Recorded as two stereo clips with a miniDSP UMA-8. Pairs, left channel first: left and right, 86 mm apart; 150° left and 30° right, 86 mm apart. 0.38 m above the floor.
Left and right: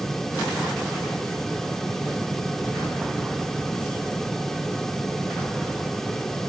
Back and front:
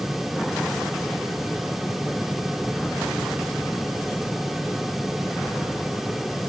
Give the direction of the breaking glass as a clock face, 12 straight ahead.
I don't hear breaking glass.